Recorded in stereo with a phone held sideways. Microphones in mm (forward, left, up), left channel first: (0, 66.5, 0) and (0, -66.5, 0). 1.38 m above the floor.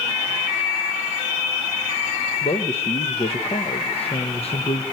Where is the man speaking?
50° left (ahead or behind), 1.1 m.